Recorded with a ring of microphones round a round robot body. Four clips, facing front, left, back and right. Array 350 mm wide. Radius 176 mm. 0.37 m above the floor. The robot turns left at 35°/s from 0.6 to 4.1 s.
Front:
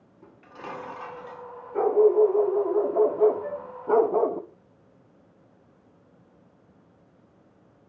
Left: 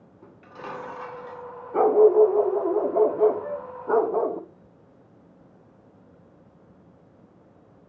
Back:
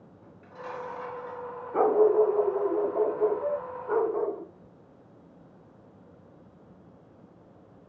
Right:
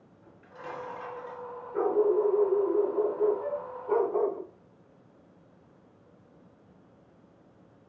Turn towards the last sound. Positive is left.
turn(degrees=175)